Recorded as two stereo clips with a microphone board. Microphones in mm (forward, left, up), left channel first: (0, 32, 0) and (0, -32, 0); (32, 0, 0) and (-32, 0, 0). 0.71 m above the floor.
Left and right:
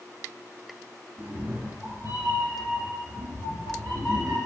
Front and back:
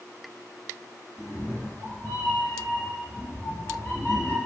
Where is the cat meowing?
50° right, 3 m; by 4.4 s 75° right, 5 m.